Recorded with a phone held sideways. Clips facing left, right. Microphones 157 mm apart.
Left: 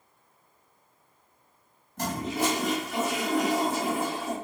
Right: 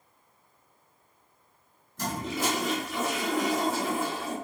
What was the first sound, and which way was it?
A toilet flushing, 65° left (ahead or behind).